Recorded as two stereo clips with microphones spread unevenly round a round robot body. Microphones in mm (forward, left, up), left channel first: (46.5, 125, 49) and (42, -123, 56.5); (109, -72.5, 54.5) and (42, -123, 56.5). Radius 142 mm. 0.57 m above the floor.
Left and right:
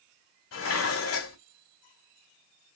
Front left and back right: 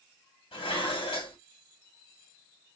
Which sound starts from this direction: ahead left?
Dishes clattering, at 0.5 s.